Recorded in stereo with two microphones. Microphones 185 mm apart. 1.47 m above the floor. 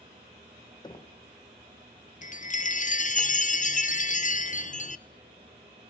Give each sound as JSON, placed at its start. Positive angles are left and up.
{"t": 0.8, "sound": "knocking", "side_deg": 25, "distance_m": 1.1}
{"t": 2.2, "sound": "a chime", "side_deg": 45, "distance_m": 0.6}